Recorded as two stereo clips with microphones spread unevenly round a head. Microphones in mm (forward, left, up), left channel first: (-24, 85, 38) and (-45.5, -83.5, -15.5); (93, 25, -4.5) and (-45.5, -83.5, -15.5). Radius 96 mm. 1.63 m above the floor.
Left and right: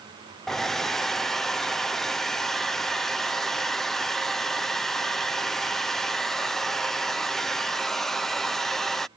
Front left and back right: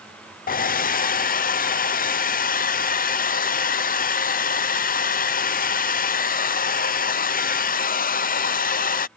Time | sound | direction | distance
0.5 | a hair dryer | 5° right | ?